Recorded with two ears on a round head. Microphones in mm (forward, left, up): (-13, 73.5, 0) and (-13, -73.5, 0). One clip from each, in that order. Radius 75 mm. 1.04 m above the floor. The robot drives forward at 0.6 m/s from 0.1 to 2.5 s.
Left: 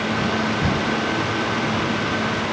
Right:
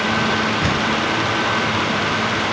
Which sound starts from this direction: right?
A door slam, at 0.6 s.